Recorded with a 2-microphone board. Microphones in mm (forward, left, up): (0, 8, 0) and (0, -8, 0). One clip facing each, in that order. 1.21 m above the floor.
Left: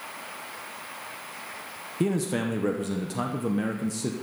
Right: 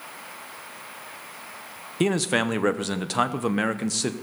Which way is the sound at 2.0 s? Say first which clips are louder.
Right 4 dB; 40° right (ahead or behind).